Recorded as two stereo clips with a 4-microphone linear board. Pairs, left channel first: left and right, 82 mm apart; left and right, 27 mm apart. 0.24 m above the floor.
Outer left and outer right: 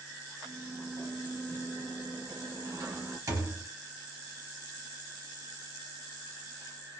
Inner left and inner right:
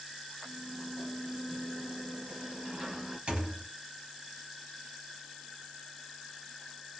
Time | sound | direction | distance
0.4 | a sliding door | 50° right (ahead or behind) | 1.1 m
3.3 | a thud | 45° right (ahead or behind) | 0.7 m